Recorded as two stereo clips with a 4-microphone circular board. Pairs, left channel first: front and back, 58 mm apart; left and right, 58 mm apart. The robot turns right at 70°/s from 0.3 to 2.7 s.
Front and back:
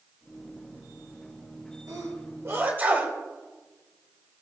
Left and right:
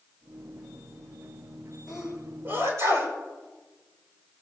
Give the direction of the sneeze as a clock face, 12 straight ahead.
6 o'clock.